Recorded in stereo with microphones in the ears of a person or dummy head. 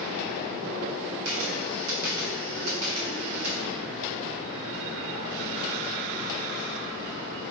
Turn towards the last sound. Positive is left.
turn(degrees=-80)